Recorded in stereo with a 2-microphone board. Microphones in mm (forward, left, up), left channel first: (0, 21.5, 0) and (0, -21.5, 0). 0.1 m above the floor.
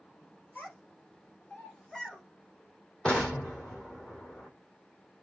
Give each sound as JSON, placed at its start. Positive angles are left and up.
{"t": 0.6, "sound": "a child speaking", "side_deg": 45, "distance_m": 1.6}
{"t": 3.0, "sound": "an explosion", "side_deg": 25, "distance_m": 0.7}